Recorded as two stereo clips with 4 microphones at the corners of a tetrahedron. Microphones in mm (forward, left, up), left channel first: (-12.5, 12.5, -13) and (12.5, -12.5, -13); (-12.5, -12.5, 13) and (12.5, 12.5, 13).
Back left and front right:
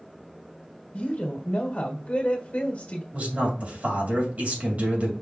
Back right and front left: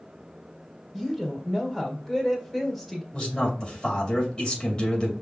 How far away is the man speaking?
About 2 m.